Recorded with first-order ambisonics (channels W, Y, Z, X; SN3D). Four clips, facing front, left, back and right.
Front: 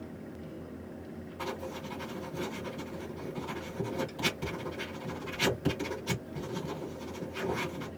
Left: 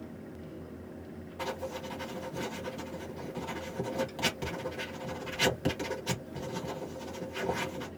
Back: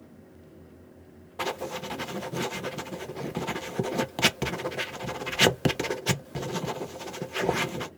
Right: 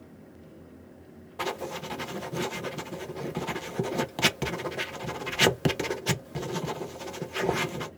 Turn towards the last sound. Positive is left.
turn(degrees=-145)